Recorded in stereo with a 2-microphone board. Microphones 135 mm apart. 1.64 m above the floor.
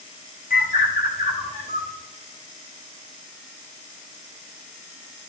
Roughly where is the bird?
Left.